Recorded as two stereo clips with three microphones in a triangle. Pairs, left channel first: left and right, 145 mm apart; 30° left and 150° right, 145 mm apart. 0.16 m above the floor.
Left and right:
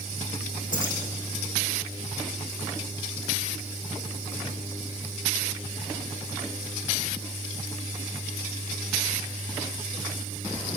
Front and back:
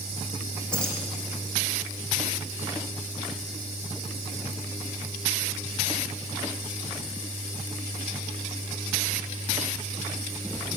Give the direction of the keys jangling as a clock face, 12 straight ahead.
8 o'clock.